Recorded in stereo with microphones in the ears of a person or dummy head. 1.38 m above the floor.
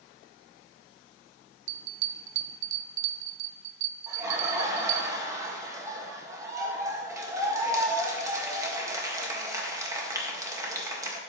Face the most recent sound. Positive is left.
turn(degrees=-20)  # may be behind; listen again after turning